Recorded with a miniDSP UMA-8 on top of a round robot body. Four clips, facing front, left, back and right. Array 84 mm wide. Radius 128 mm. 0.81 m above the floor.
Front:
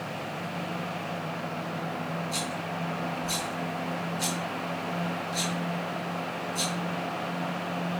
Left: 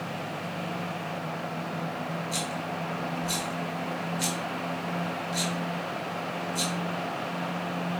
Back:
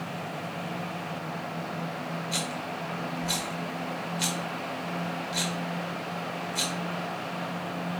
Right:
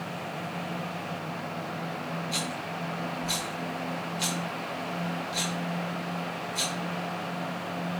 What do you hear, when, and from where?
2.3 s a rattle: 155° right, 1.1 m